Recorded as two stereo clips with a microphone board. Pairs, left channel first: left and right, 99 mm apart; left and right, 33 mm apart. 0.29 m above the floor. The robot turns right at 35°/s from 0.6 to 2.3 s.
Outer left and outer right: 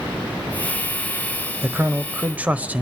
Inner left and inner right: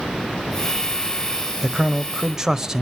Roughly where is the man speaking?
Centre.